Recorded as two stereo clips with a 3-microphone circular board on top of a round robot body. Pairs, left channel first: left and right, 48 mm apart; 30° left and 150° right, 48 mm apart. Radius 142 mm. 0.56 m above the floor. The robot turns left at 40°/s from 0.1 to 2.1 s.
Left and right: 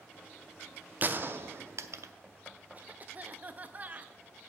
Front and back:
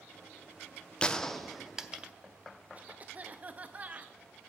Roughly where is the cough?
Behind right.